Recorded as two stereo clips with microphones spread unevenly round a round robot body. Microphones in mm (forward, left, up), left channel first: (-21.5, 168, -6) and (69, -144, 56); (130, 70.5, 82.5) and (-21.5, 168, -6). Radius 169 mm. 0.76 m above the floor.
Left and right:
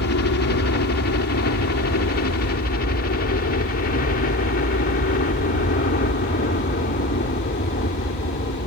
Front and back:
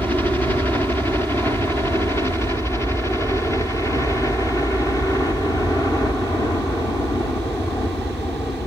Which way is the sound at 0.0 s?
65° left.